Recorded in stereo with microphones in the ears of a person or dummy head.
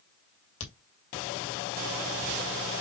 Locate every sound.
0.6 s a crack: 70° left (ahead or behind), 2.0 m